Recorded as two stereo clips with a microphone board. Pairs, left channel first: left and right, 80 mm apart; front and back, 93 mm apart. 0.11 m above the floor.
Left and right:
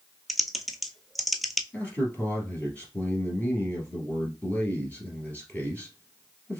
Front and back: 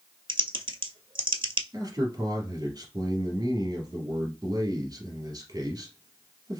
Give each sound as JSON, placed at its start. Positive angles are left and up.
{"t": 0.3, "sound": "typing on a keyboard", "azimuth_deg": 180, "distance_m": 0.6}
{"t": 1.7, "sound": "a man speaking", "azimuth_deg": 150, "distance_m": 2.0}